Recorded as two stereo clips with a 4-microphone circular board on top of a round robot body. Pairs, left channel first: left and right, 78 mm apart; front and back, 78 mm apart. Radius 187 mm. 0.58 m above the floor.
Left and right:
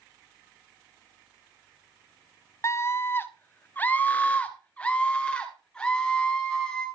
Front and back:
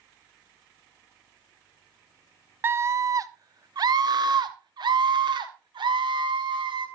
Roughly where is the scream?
Behind left.